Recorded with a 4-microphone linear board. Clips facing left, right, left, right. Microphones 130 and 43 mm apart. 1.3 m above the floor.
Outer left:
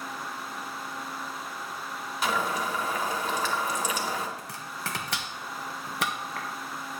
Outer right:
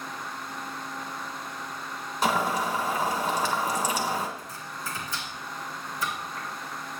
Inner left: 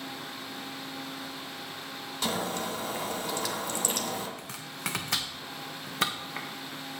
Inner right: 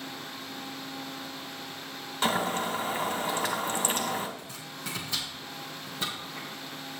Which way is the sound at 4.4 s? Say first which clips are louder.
Even, inner left 3 dB; 80° left.